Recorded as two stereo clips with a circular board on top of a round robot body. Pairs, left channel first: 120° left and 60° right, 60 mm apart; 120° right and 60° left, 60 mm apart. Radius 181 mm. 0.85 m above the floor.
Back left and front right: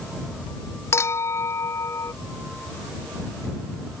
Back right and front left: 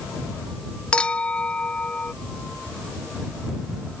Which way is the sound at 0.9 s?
165° left.